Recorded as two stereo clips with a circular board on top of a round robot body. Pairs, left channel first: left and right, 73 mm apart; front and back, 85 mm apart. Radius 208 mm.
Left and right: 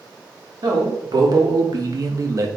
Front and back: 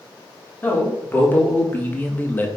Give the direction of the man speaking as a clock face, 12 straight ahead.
2 o'clock.